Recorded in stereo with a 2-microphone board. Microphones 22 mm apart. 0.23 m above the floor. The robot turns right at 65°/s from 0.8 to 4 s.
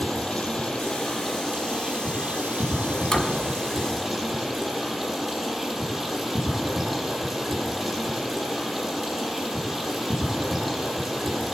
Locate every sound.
0.0 s running water: 160° left, 6 m; by 11.6 s 5° left, 6 m
3.1 s a door slam: 35° left (ahead or behind), 1.3 m; by 3.5 s 50° left (ahead or behind), 1.3 m